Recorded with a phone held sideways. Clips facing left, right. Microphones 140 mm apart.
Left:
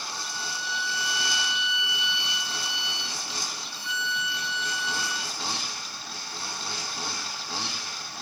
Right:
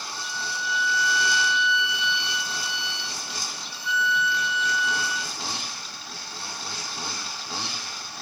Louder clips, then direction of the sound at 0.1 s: Right 3 dB; 65° right (ahead or behind).